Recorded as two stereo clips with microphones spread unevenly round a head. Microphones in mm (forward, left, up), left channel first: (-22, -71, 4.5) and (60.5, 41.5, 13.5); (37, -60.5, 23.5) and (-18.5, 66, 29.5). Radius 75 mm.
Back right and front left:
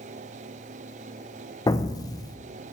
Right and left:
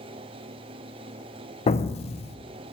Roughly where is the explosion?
Right.